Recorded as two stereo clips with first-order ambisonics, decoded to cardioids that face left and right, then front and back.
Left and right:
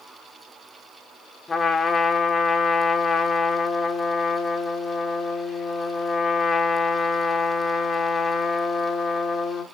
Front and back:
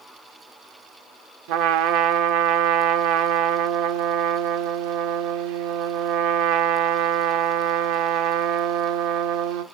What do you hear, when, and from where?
1.5 s a trumpet: 165° left, 0.9 m